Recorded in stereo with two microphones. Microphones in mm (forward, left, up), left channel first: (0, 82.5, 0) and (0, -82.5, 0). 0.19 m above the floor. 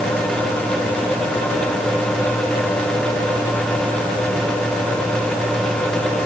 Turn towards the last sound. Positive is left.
No sound to turn to.